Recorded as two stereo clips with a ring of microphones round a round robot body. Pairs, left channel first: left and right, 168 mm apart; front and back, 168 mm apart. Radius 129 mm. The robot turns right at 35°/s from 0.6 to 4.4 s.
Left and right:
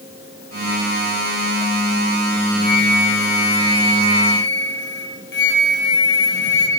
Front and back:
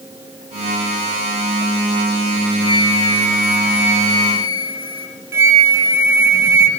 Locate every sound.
2.6 s a flute: 60° left, 8.5 m; by 5.1 s 120° left, 8.5 m
5.3 s a flute: 105° left, 8 m